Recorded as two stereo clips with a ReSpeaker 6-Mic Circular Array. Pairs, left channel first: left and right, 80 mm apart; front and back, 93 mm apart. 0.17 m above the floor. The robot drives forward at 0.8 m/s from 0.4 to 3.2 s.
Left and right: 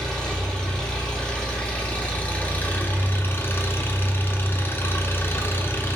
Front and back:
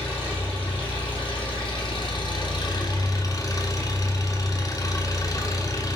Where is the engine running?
10° left, 3 m; by 6.0 s 35° left, 1.1 m.